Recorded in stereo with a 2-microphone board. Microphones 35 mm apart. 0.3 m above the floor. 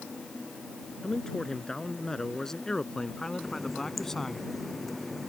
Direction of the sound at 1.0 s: 15° left (ahead or behind).